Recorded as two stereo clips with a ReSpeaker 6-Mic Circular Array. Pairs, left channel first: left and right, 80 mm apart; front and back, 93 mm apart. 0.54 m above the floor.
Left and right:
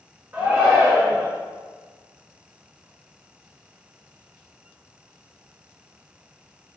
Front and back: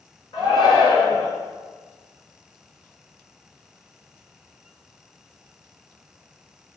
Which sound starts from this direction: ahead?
A shout, at 0.3 s.